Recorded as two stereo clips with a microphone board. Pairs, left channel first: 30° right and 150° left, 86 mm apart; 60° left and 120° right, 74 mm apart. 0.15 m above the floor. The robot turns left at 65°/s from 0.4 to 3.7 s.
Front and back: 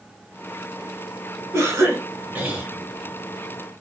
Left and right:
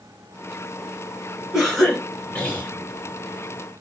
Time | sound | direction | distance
1.5 | a cough | 170° left | 1.4 m